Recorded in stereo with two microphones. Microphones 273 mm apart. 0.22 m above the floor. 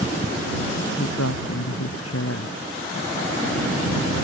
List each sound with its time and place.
1.0 s a woman speaking: 65° left (ahead or behind)